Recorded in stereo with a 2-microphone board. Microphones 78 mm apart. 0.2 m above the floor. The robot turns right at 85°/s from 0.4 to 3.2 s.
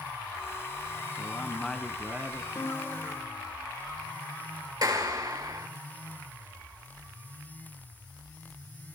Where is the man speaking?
130° left, 1.6 m; by 2.5 s 125° right, 1.6 m.